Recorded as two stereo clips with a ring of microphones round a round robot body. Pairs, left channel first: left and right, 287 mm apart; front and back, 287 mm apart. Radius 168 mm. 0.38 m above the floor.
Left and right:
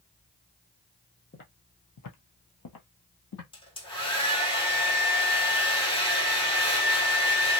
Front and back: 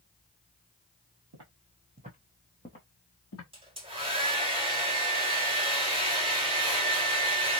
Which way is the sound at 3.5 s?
140° left.